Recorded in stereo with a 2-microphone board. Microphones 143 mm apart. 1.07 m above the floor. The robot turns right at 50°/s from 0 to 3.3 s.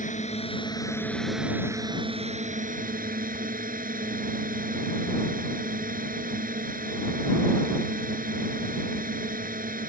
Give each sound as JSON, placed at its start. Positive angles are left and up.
{"t": 0.0, "sound": "a drone", "azimuth_deg": 115}